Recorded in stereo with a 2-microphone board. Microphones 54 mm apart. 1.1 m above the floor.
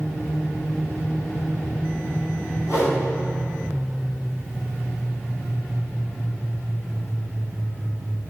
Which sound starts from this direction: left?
A whoosh, at 2.6 s.